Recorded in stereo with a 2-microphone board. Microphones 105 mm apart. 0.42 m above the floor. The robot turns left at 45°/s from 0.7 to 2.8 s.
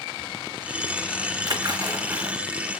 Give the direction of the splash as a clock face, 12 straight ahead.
4 o'clock.